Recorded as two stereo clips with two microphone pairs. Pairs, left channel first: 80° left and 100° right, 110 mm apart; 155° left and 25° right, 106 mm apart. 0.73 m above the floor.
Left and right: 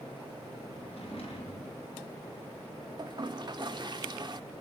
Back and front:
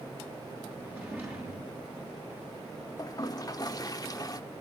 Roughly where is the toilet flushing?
Behind right.